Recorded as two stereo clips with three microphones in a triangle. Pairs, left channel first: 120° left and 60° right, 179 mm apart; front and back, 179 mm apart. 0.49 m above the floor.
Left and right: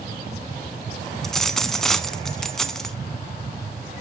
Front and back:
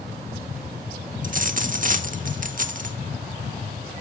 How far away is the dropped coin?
About 0.6 m.